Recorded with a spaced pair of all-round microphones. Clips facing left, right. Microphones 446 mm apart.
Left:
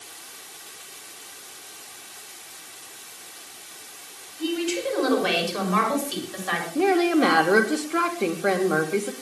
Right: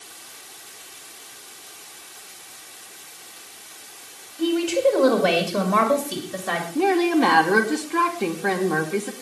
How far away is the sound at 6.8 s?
About 3 m.